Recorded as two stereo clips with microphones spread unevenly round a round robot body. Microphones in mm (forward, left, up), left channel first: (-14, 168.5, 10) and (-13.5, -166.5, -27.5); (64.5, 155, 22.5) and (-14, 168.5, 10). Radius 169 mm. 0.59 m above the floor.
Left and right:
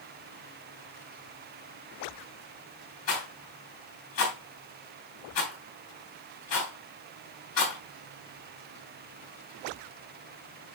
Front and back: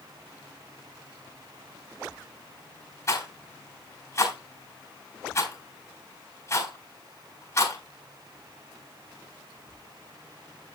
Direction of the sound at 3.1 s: 40° left.